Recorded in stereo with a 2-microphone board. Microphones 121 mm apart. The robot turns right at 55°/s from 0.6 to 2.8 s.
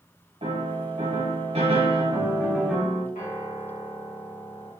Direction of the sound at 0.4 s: 115° right.